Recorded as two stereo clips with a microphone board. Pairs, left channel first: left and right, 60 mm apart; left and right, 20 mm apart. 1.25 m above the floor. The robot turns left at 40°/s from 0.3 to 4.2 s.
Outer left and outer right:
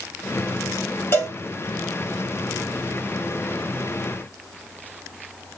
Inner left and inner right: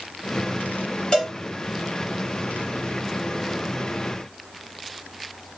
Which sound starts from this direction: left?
A cowbell, at 1.1 s.